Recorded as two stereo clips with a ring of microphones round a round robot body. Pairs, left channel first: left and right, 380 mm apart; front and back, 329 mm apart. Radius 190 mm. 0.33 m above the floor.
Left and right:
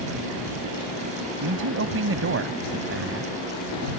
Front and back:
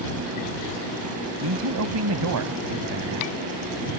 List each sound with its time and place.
1.4 s a man speaking: 140° right